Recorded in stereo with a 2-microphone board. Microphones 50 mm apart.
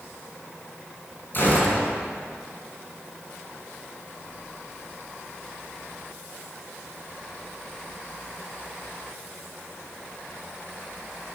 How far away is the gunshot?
About 2.5 m.